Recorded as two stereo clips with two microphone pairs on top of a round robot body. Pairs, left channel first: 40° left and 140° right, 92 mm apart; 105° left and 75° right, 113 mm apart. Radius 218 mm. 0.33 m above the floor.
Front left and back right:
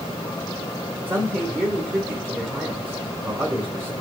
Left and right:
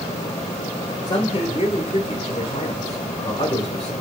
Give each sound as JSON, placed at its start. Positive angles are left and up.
{"t": 1.1, "sound": "a man speaking", "azimuth_deg": 150, "distance_m": 2.5}